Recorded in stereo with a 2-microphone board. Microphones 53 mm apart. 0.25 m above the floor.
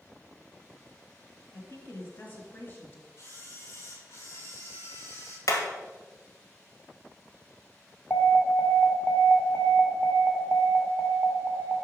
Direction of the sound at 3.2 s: 55° left (ahead or behind).